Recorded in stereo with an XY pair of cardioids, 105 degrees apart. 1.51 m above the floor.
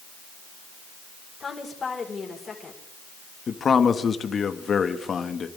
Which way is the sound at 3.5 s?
45° left.